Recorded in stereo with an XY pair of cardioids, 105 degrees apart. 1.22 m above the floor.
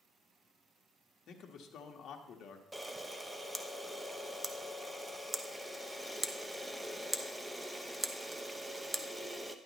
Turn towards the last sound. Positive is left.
turn(degrees=-10)